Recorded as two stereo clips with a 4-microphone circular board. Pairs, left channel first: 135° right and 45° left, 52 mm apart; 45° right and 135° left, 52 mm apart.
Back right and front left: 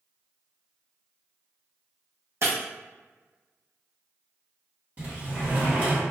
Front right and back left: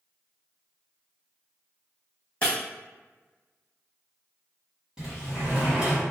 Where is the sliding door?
70° left, 1.3 m.